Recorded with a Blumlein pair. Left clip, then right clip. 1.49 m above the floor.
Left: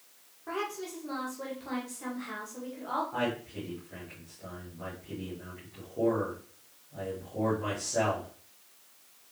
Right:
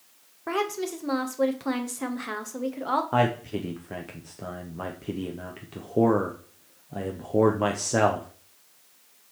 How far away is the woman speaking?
About 1.3 m.